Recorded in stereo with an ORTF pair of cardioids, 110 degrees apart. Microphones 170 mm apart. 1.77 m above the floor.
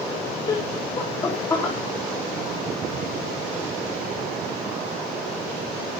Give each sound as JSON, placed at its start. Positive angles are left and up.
{"t": 0.5, "sound": "laughter", "azimuth_deg": 25, "distance_m": 2.5}